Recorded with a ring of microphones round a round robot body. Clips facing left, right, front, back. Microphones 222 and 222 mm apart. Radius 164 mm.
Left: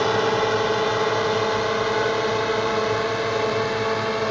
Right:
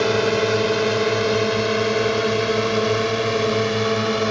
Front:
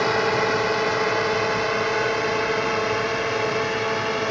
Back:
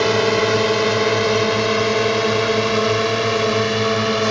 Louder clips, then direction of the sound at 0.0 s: Right 2 dB, back 6 dB; 145° right.